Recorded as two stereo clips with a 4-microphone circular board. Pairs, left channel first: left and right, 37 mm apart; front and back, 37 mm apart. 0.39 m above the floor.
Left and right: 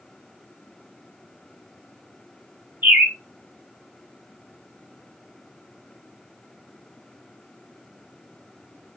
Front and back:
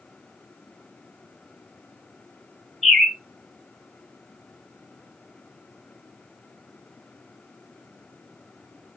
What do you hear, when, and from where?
2.8 s a bird: 95° right, 2.5 m